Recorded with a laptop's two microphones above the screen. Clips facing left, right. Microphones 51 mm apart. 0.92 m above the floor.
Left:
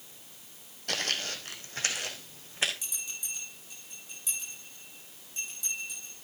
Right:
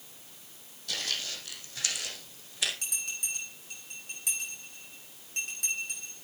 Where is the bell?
60° right (ahead or behind), 7 m.